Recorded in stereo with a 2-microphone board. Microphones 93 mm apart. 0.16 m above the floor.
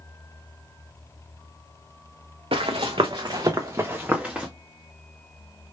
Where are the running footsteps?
80° right, 1.0 m; by 4.5 s 5° right (ahead or behind), 1.1 m.